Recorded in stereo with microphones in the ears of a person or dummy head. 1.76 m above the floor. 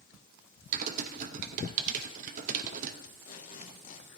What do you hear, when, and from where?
0.7 s typing on a keyboard: 45° right (ahead or behind), 0.8 m
3.0 s tape being pulled: 45° left (ahead or behind), 1.7 m